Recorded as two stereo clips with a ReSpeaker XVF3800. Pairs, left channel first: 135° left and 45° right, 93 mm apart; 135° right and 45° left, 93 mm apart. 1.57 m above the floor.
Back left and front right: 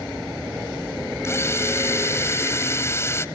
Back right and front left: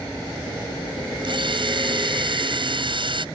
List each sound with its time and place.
1.2 s a drill: 75° left